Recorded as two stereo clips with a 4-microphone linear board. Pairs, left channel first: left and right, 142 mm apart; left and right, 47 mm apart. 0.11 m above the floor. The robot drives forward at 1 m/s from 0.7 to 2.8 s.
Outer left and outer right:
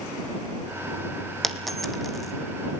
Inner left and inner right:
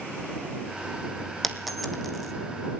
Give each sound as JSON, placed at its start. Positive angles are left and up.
{"t": 1.4, "sound": "a dropped coin", "side_deg": 0, "distance_m": 1.7}